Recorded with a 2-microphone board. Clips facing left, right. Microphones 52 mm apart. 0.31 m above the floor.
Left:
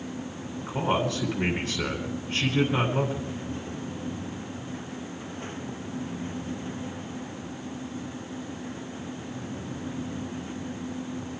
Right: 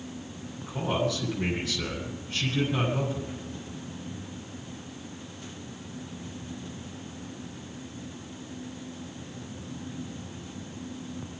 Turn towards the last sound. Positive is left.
turn(degrees=25)  # may be behind; listen again after turning